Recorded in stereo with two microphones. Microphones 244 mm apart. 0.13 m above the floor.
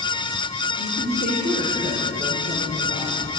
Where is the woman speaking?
40° right (ahead or behind), 4 m.